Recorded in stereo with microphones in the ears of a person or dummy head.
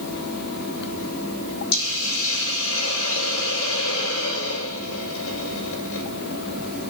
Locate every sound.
1.7 s a hiss: 75° left (ahead or behind), 5.5 m